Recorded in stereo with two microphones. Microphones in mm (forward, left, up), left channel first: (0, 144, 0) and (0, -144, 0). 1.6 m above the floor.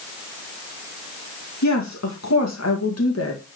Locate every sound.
1.6 s a woman speaking: 75° left (ahead or behind), 2 m; by 3.4 s 50° left (ahead or behind), 1.9 m